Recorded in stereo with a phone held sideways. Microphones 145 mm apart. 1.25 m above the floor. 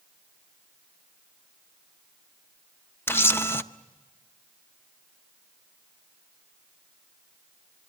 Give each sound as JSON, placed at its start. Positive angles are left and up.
{"t": 3.1, "sound": "a camera shutter", "side_deg": 15, "distance_m": 0.6}